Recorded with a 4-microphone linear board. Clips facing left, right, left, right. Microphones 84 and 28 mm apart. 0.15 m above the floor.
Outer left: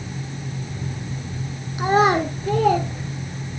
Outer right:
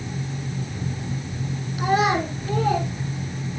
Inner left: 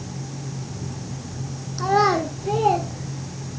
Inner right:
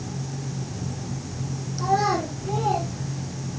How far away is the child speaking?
About 0.9 m.